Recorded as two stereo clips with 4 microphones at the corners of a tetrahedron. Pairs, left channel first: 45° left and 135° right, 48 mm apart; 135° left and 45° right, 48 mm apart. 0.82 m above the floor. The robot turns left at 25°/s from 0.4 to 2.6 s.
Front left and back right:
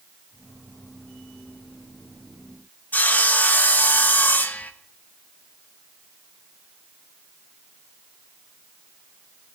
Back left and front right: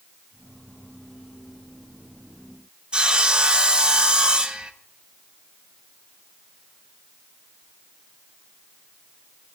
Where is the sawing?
15° left, 1.0 m.